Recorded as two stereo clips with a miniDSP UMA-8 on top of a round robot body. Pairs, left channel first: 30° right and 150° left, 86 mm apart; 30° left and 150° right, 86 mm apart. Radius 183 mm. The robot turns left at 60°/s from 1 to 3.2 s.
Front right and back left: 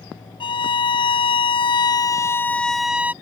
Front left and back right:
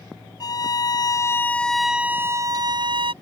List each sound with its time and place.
0.4 s a violin: 10° right; by 3.1 s 140° right